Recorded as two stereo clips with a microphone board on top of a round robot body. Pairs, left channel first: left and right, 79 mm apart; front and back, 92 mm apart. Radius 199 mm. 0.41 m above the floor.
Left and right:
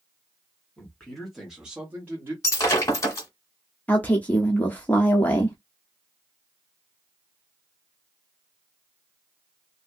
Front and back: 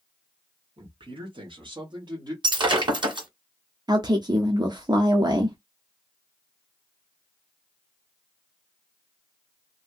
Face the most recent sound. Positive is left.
turn(degrees=155)